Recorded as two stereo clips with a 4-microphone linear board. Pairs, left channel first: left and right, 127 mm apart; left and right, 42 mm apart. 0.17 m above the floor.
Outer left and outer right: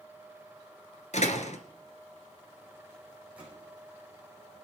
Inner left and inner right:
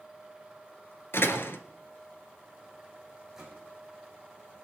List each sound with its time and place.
1.1 s a door slam: 65° left (ahead or behind), 1.6 m
3.4 s a gunshot: 10° right (ahead or behind), 7.5 m